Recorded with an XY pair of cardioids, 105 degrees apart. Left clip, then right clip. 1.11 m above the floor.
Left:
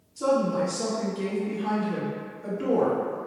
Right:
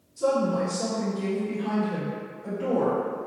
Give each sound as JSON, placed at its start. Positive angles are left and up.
{"t": 0.2, "sound": "a woman speaking", "azimuth_deg": 65, "distance_m": 1.6}